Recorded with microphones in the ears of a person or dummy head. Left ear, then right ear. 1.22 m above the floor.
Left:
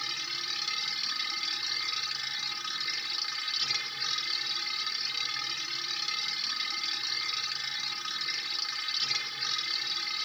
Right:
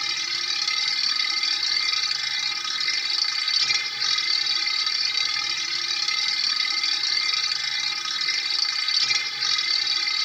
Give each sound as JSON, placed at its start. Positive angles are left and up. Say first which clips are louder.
{"t": 0.0, "sound": "a machine running", "louder": "right 8 dB", "side_deg": -30}